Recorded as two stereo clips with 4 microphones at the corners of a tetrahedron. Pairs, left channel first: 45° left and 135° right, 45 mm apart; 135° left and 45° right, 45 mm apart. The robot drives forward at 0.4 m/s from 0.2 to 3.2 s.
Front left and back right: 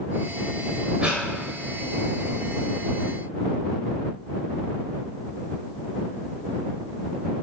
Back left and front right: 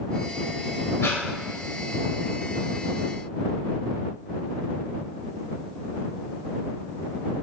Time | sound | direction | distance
1.0 | breathing | 160° left | 2 m